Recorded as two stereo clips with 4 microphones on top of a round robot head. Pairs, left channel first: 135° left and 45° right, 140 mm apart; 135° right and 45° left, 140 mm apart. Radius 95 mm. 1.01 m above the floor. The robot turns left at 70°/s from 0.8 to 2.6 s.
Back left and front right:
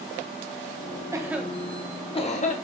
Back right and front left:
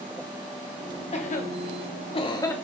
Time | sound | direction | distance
1.1 | a cough | 105° right | 1.2 m